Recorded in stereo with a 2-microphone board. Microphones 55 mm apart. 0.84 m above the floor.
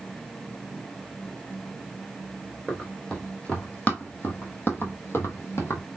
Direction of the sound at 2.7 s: 15° left (ahead or behind).